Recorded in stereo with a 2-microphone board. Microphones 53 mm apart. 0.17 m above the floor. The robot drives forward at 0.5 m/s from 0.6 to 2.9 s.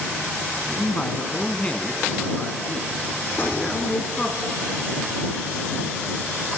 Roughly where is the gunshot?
Left.